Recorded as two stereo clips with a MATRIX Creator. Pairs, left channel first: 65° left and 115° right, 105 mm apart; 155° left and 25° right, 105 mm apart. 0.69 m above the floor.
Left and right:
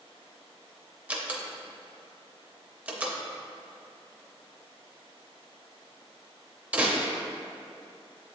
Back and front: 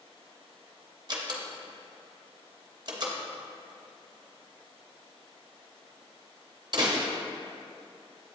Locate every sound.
1.1 s a door slam: 40° right, 0.6 m